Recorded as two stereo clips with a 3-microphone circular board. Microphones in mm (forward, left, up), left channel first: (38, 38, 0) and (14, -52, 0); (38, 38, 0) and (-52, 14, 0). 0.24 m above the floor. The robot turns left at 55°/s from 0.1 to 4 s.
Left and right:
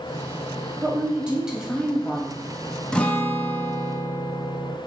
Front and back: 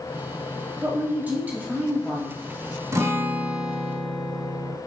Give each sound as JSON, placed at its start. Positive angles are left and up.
{"t": 0.8, "sound": "a woman speaking", "azimuth_deg": -135, "distance_m": 1.0}
{"t": 2.9, "sound": "a guitar", "azimuth_deg": 150, "distance_m": 0.5}